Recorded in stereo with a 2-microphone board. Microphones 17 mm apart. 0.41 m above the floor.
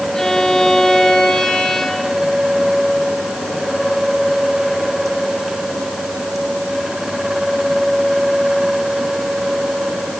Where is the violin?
50° left (ahead or behind), 3 m.